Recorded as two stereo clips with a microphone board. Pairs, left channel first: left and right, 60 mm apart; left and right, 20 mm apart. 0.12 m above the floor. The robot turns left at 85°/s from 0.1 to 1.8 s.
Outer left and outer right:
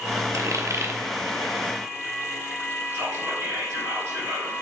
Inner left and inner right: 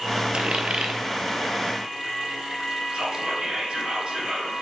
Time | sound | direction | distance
0.3 | a dropped coin | 60° right (ahead or behind) | 1.0 m
2.9 | whispering | 60° right (ahead or behind) | 3 m